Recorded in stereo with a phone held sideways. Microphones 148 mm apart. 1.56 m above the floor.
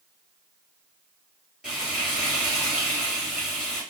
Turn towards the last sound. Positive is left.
turn(degrees=-5)  # may be behind; listen again after turning